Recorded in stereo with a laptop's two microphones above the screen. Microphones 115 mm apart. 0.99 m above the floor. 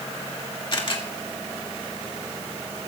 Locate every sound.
0.7 s a camera shutter: 50° left (ahead or behind), 2.0 m